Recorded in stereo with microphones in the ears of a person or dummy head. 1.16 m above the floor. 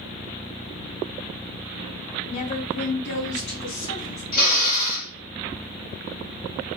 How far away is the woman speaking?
About 1.3 m.